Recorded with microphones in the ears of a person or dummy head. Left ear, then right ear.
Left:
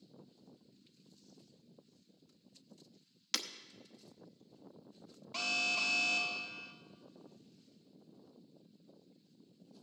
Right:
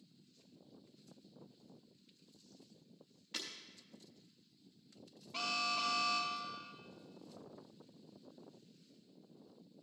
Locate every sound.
3.3 s breaking glass: 60° left (ahead or behind), 0.8 m
5.3 s an alarm: 20° left (ahead or behind), 0.7 m